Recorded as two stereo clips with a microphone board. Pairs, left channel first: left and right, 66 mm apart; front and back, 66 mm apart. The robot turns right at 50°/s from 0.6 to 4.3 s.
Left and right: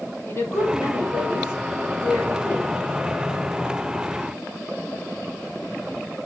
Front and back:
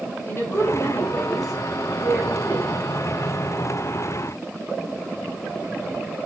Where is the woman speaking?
40° left, 3.5 m; by 2.7 s 145° left, 3.5 m.